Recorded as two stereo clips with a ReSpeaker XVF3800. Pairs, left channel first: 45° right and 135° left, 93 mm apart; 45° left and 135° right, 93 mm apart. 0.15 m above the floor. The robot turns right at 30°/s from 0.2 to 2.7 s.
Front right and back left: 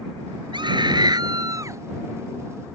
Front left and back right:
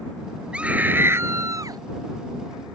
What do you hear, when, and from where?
0.5 s a scream: 150° left; by 1.8 s 175° right